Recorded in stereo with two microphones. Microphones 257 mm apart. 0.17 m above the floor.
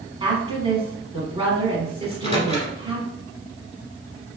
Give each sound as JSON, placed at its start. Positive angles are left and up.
{"t": 0.2, "sound": "a woman speaking", "side_deg": -20, "distance_m": 1.2}
{"t": 2.0, "sound": "a microwave", "side_deg": 20, "distance_m": 1.4}